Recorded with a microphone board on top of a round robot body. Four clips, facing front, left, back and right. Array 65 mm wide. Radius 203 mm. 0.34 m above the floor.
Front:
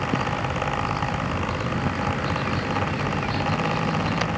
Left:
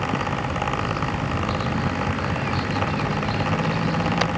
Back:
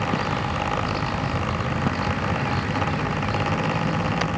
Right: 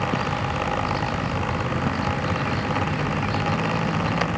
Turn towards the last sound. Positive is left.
No sound to turn to.